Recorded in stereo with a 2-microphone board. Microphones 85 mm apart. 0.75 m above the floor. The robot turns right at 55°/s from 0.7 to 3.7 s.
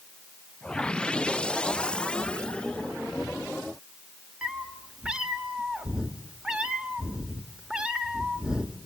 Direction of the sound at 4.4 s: 10° right (ahead or behind).